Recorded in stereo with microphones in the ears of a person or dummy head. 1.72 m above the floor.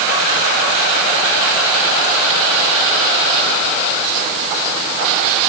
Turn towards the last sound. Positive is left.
No sound to turn to.